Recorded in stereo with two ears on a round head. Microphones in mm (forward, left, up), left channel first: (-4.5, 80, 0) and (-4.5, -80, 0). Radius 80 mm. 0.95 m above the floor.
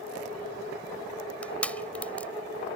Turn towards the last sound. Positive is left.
turn(degrees=10)  # may be behind; listen again after turning